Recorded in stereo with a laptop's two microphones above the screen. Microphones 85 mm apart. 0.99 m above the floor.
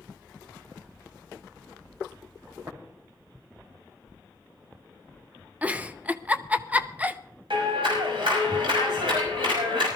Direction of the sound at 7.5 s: 85° right.